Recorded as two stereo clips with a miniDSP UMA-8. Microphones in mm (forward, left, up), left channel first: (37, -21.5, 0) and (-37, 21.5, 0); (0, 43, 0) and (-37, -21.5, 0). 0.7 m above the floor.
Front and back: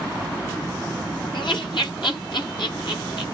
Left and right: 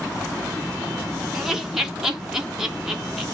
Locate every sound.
1.3 s laughter: 35° right, 1.2 m